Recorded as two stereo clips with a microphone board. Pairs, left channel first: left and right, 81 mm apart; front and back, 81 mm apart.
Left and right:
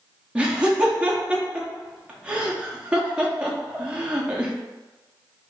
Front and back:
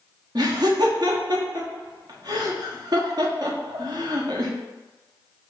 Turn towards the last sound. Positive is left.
turn(degrees=-165)